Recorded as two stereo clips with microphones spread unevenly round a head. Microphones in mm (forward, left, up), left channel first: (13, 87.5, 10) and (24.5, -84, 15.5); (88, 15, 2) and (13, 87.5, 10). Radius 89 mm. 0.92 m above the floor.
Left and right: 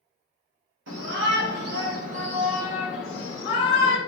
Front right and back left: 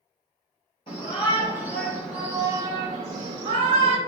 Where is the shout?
105° right, 2 m; by 4.0 s 145° left, 1.7 m.